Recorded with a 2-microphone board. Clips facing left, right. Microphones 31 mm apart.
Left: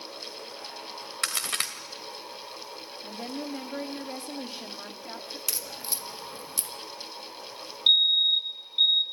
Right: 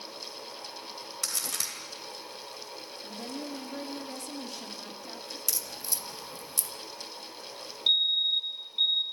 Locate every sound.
1.2 s a crack: 45° left (ahead or behind), 2.5 m
3.0 s a woman speaking: 35° left (ahead or behind), 1.8 m
5.5 s a crack: 35° left (ahead or behind), 1.3 m
7.9 s a fire alarm: 25° left (ahead or behind), 1.5 m